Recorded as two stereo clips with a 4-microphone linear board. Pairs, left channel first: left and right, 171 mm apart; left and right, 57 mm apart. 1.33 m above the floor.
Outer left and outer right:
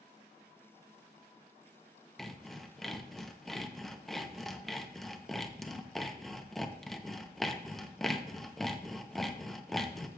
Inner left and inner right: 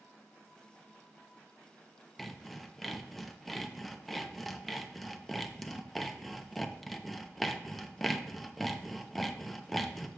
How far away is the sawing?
About 0.7 m.